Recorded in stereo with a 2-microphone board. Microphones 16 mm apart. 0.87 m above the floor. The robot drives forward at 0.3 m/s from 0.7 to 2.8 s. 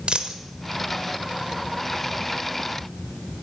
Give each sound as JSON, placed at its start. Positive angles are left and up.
{"t": 0.1, "sound": "a dropped coin", "side_deg": -75, "distance_m": 1.2}